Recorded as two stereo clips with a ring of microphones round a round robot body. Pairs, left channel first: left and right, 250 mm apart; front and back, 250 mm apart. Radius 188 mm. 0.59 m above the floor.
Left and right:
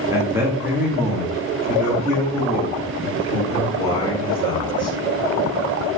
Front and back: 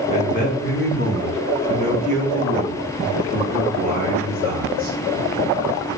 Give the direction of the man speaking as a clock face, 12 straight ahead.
1 o'clock.